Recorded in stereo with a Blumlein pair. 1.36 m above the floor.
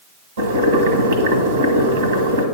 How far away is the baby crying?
No baby crying in this recording.